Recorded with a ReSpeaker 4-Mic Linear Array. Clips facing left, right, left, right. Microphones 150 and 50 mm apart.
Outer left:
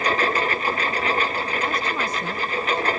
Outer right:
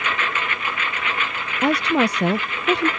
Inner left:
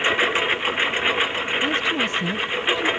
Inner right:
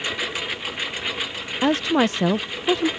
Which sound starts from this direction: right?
A woman speaking, at 1.6 s.